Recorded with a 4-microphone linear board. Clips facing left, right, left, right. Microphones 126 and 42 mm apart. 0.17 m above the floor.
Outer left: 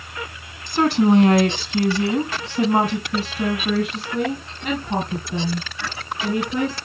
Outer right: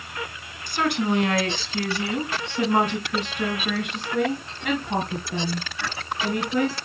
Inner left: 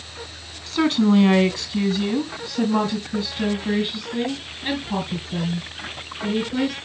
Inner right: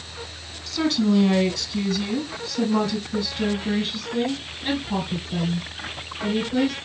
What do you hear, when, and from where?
0.7 s a woman speaking: 30° left (ahead or behind), 1.2 m; by 6.8 s 5° right (ahead or behind), 3 m